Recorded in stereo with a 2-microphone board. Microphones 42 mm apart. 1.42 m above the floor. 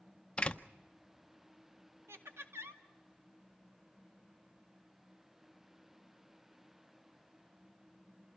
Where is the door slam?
25° left (ahead or behind), 0.7 m.